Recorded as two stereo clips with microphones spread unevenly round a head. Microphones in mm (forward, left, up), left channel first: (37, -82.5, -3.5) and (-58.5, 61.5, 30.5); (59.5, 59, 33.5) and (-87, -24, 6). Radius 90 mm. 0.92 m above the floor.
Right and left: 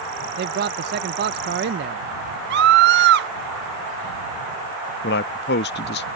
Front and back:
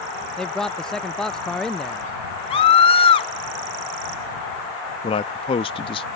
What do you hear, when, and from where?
0.4 s a man speaking: 125° left
2.5 s a scream: 90° left
5.0 s a man speaking: 35° right